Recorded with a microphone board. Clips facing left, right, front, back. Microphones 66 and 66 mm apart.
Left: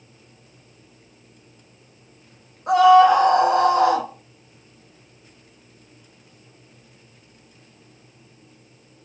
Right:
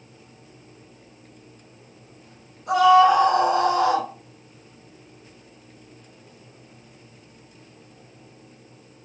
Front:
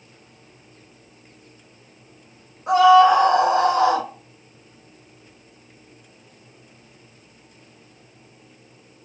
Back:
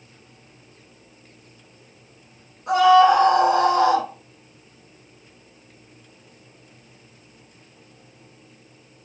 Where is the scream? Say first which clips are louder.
Left 3 dB, front 1 dB; 65° left, 0.8 m.